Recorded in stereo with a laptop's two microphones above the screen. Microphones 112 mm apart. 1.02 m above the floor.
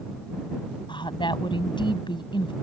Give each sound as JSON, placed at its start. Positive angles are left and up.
{"t": 0.9, "sound": "a woman speaking", "side_deg": 45}